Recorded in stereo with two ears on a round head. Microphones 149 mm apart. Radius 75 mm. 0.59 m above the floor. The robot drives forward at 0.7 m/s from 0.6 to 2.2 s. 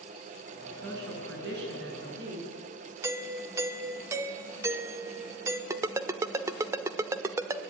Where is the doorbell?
15° right (ahead or behind), 1.6 m.